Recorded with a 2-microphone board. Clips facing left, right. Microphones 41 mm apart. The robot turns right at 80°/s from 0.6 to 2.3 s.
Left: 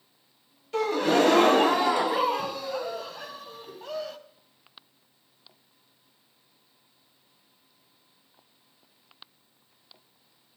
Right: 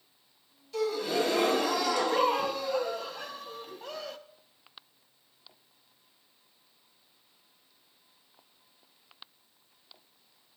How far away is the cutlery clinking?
No cutlery clinking in this recording.